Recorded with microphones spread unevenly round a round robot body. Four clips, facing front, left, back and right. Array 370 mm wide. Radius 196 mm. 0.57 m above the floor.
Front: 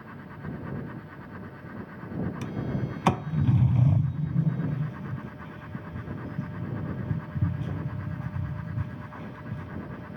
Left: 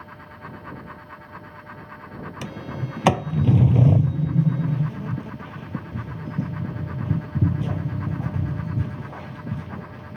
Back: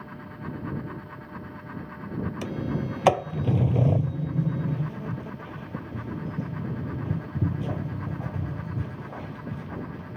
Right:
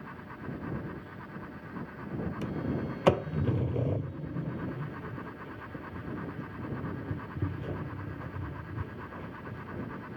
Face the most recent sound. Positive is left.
turn(degrees=100)